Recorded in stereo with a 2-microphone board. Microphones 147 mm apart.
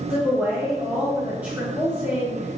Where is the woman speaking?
10° right (ahead or behind), 1.0 m.